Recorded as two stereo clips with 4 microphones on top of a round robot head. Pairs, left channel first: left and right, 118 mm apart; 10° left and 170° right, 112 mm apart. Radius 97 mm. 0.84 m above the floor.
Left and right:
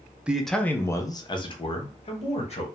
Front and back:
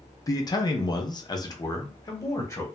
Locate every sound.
0.3 s a man speaking: 15° right, 0.6 m; by 2.7 s 70° left, 1.3 m